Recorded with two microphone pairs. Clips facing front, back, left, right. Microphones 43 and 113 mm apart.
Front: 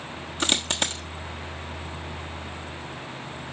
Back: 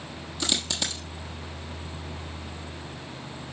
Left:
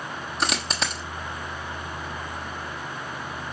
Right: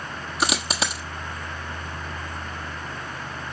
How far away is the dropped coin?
About 1.2 m.